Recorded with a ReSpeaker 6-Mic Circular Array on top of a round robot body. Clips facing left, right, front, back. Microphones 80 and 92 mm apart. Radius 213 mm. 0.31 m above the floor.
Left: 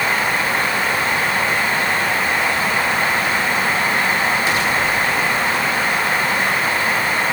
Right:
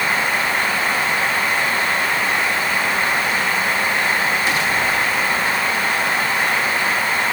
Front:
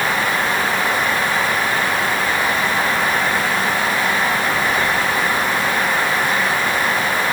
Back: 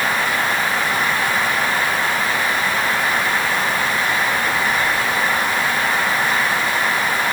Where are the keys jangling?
I don't hear keys jangling.